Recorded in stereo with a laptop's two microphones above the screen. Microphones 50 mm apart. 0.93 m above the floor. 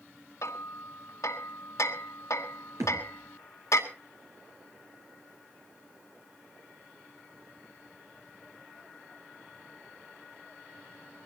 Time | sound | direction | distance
0.4 | hammering | 80° left | 2.5 m
2.8 | a thud | 85° right | 5.5 m